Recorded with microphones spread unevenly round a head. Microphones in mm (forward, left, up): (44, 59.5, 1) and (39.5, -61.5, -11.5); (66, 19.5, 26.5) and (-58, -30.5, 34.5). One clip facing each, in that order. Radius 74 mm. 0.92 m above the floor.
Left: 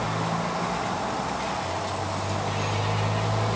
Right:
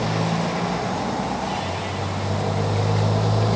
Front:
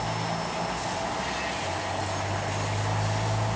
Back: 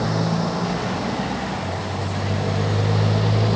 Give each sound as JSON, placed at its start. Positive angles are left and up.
{"t": 0.0, "sound": "a motorcycle", "azimuth_deg": -155}